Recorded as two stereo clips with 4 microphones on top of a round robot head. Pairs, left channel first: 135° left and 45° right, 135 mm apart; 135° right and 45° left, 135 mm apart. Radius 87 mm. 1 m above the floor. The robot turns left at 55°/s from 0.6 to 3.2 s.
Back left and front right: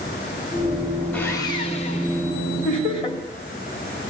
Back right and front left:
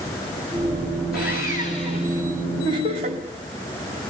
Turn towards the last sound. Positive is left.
turn(degrees=75)